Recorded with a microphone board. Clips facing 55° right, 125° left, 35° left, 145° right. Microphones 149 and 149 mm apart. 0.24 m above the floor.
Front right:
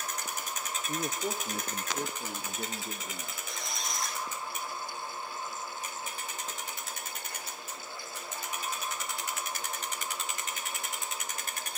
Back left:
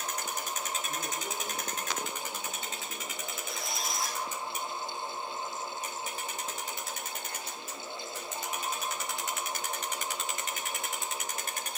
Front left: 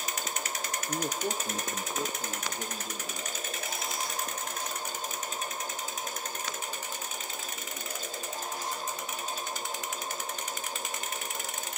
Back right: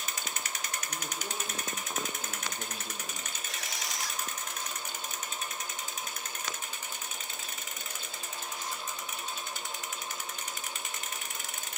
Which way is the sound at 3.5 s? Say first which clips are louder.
Back left 2 dB, front left 3 dB; 150° right.